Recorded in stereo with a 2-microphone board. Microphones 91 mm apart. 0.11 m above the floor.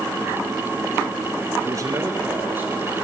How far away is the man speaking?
About 1.4 m.